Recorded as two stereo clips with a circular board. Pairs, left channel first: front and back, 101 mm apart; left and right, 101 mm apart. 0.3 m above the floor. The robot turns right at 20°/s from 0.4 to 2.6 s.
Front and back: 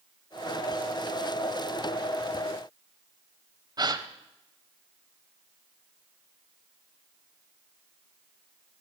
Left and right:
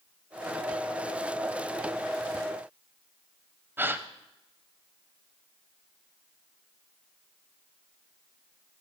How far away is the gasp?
About 0.7 m.